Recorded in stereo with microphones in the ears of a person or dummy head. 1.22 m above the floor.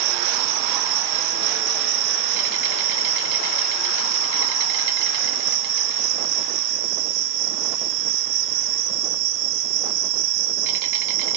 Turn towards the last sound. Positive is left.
turn(degrees=-60)  # may be behind; listen again after turning